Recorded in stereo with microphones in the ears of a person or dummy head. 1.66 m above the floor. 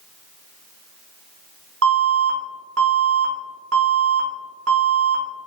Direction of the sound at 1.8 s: 75° right (ahead or behind).